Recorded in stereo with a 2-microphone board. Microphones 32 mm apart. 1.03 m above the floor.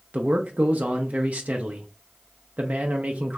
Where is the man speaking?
55° right (ahead or behind), 0.5 m.